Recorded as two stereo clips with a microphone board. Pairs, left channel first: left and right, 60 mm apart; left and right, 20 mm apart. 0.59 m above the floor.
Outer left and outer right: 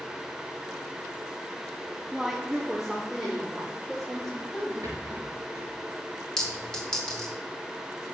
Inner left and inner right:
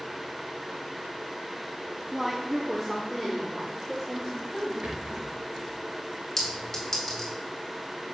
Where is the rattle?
85° right, 3.5 m.